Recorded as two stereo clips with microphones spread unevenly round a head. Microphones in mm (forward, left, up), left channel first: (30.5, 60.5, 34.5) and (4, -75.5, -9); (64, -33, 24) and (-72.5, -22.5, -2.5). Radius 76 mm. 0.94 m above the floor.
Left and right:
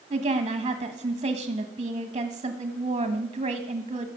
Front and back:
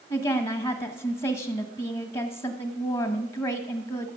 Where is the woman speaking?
60° right, 1.3 m.